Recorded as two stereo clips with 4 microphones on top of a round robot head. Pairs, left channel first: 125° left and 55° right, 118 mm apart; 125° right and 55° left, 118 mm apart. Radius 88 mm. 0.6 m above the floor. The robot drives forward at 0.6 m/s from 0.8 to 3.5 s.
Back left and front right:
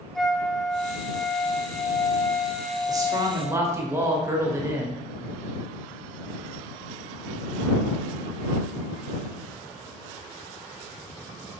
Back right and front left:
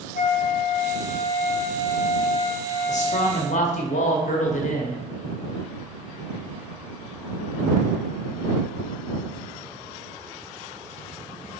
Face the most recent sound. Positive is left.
turn(degrees=-120)